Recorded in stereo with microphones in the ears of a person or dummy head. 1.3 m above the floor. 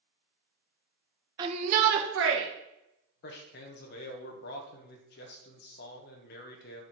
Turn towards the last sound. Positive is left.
turn(degrees=60)  # may be behind; listen again after turning